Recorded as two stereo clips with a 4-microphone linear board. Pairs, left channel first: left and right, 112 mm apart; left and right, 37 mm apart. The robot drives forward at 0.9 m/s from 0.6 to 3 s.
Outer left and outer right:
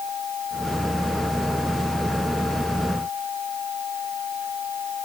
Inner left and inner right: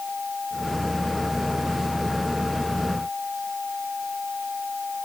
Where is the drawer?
I don't hear a drawer.